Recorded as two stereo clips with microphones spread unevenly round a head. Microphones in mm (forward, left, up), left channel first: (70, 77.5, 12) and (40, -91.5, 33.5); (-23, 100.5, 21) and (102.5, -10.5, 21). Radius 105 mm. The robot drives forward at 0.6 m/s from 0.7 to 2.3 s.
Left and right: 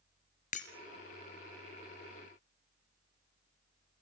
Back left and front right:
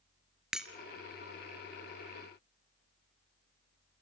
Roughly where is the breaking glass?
Ahead left.